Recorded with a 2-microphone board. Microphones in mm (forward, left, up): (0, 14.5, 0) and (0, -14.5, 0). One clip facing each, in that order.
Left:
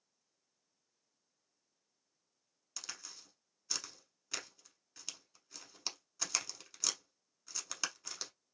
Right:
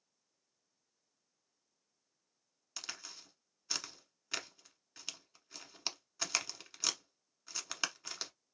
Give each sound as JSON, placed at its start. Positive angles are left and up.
{"t": 2.8, "sound": "a crack", "side_deg": -20, "distance_m": 0.7}